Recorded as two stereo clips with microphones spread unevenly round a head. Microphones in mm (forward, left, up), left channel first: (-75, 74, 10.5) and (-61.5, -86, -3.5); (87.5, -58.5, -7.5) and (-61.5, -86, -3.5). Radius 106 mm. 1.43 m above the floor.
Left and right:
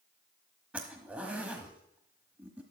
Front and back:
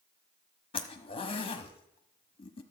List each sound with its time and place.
0.7 s a zipper: straight ahead, 0.9 m